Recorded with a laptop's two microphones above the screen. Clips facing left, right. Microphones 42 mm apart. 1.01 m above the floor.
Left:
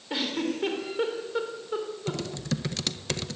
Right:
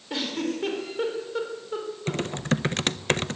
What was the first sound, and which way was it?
A giggle, 5° left (ahead or behind).